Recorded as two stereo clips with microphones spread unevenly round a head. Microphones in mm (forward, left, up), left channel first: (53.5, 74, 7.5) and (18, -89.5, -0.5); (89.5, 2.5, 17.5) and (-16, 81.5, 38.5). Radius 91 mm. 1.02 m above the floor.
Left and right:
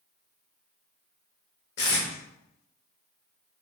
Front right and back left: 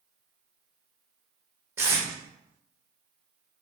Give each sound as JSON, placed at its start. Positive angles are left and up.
{"t": 1.8, "sound": "tape being pulled", "azimuth_deg": 70, "distance_m": 1.5}